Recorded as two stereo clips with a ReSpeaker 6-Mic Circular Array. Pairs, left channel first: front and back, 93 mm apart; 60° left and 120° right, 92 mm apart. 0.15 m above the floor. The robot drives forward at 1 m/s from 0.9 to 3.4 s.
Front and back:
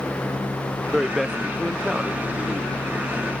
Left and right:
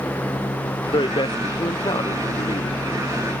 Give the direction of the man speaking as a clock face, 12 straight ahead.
9 o'clock.